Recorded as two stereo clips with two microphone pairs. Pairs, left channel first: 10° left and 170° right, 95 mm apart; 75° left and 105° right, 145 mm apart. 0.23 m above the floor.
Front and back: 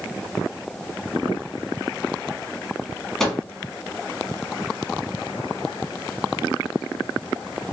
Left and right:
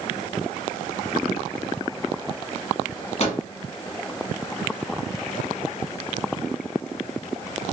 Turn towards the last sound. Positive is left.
turn(degrees=100)